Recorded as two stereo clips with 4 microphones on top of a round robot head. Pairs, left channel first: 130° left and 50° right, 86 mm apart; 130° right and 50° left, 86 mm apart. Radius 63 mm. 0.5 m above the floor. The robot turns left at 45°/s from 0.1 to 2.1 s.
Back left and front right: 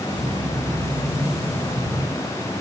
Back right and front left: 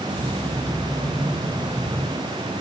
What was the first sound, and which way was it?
Only background noise.